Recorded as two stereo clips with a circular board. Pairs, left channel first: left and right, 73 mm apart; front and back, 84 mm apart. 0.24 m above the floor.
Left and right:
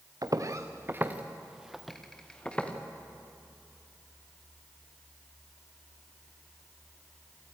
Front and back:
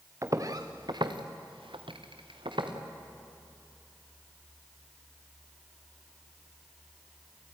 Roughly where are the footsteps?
Behind right.